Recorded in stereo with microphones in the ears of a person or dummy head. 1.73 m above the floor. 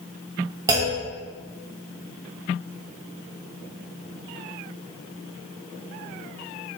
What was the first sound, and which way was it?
A clunk, 20° right (ahead or behind).